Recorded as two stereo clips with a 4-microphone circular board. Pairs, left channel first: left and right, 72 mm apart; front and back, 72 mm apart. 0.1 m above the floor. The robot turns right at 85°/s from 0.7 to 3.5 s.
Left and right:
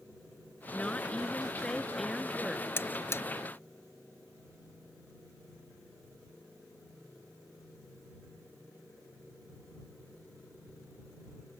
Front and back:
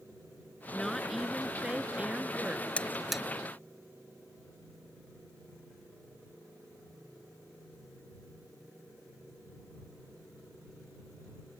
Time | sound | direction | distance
0.7 | a woman speaking | 55° left | ?
2.8 | a buzzer | 60° left | ?